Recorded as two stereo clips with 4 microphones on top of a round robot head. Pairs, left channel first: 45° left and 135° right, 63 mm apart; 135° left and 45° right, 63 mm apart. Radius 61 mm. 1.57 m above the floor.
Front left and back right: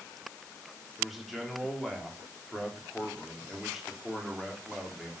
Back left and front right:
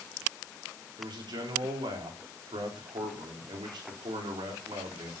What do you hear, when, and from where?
1.0 s a man speaking: 45° right, 4.5 m